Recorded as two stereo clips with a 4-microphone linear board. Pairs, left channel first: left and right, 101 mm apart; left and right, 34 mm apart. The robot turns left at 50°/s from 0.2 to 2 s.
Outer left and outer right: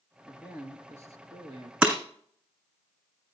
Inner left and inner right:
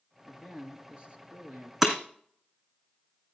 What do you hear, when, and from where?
0.3 s a man speaking: 15° right, 1.9 m; by 1.7 s 85° right, 1.9 m
1.8 s breaking glass: 15° right (ahead or behind), 2 m; by 2.0 s 20° right (ahead or behind), 2 m